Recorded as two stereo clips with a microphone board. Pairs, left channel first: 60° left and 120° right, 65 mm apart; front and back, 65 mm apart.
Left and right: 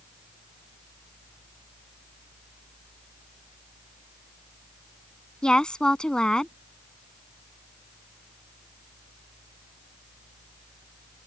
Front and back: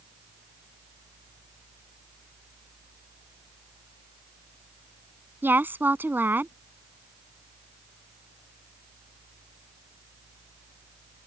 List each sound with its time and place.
5.4 s a woman speaking: 135° left